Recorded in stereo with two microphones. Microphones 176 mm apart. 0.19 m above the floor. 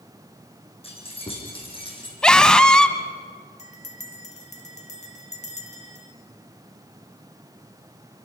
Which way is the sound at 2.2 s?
5° left (ahead or behind).